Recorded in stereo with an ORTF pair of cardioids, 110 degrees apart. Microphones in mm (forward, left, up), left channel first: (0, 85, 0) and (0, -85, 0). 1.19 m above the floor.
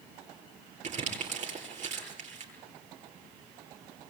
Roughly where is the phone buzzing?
I don't hear a phone buzzing.